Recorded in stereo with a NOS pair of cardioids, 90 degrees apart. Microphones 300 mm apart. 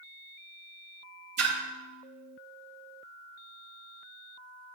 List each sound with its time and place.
1.4 s a splash: 60° right, 1.5 m